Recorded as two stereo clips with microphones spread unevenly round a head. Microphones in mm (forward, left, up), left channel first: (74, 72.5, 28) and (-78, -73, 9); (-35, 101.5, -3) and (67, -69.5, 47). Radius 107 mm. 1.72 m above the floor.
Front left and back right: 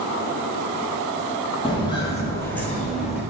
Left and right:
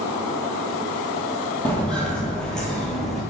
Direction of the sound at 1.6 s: 15° left.